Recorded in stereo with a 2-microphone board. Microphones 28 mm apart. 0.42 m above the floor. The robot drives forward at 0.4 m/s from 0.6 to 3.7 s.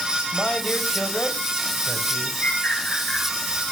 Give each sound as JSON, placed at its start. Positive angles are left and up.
{"t": 0.3, "sound": "a man speaking", "side_deg": 35, "distance_m": 2.5}
{"t": 2.4, "sound": "a bird", "side_deg": 55, "distance_m": 9.0}